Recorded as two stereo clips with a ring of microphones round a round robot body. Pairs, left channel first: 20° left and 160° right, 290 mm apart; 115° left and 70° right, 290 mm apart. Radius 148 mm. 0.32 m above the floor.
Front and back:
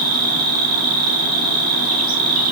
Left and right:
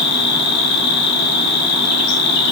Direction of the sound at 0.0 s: 140° left.